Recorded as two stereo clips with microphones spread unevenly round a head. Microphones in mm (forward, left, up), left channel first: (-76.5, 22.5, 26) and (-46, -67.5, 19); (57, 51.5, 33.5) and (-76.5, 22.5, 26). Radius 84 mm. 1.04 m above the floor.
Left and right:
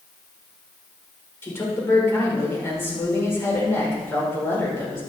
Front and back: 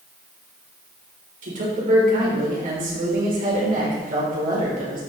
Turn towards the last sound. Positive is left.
turn(degrees=175)